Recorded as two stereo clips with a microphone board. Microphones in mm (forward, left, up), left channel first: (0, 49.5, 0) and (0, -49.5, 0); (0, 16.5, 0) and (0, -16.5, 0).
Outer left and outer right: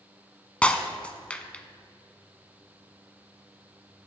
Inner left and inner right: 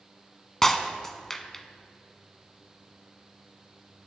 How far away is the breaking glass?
About 0.7 m.